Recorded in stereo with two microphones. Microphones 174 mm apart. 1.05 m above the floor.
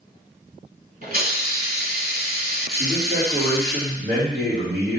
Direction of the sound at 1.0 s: 55° right (ahead or behind).